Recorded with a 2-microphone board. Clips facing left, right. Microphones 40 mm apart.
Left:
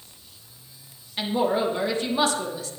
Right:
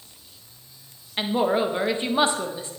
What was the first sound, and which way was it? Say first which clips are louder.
A woman speaking: right 1 dB; 25° right (ahead or behind).